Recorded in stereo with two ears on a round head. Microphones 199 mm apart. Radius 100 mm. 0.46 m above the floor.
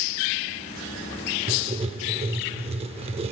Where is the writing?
25° right (ahead or behind), 0.5 m.